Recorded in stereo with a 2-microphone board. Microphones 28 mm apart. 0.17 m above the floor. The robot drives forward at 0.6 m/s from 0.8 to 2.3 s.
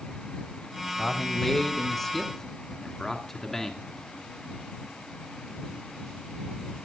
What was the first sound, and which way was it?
A man speaking, 10° left (ahead or behind).